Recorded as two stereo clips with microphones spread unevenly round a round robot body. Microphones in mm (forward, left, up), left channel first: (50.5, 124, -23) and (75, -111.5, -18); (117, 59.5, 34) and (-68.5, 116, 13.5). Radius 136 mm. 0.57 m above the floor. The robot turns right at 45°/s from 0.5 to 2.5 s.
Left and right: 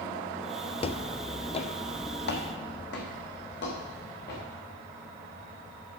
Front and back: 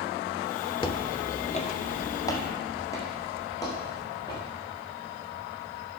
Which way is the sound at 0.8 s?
35° left.